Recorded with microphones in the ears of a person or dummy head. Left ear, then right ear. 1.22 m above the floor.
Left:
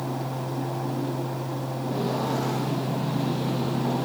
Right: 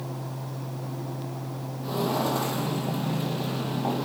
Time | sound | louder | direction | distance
1.8 | footsteps | right 2 dB | 55° right (ahead or behind) | 2.5 m